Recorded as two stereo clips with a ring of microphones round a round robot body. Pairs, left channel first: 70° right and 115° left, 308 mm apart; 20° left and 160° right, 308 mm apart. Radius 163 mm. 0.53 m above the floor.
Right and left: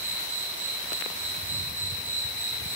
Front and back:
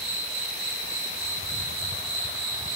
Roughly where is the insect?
Behind left.